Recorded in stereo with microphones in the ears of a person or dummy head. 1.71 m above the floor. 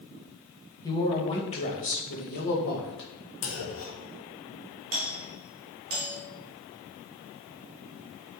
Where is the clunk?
65° left (ahead or behind), 1.7 m.